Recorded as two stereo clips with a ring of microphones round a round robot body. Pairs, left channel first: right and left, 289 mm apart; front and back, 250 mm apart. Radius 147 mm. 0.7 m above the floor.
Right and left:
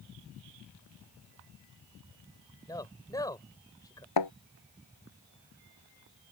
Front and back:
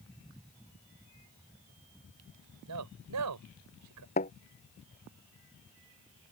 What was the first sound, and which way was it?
A man speaking, 170° right.